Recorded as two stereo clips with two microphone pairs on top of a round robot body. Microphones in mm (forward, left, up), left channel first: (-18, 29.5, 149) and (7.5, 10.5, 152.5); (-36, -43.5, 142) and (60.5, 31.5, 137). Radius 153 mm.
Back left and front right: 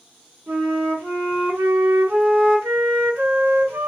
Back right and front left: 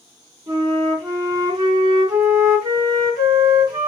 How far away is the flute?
About 2.5 m.